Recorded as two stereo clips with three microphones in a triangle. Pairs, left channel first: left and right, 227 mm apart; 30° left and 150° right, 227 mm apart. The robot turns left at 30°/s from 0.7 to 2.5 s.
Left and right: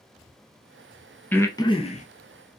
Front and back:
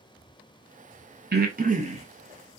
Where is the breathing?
175° left, 0.6 m; by 2.1 s 150° left, 0.6 m.